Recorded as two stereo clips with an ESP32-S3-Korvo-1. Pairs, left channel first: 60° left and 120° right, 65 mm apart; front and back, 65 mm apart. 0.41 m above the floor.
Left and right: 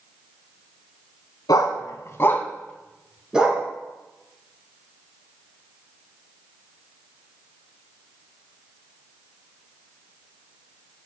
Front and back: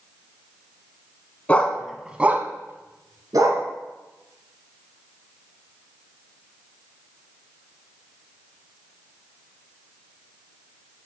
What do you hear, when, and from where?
1.5 s a dog barking: 70° left, 0.8 m; by 3.6 s 170° left, 1.3 m